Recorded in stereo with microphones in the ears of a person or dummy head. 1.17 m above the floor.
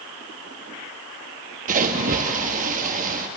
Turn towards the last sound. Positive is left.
turn(degrees=-45)  # may be behind; listen again after turning